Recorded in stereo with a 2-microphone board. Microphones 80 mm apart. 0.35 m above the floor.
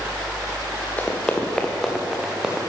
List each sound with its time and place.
1.0 s running footsteps: 20° left (ahead or behind), 2.5 m; by 2.6 s 10° right (ahead or behind), 2.5 m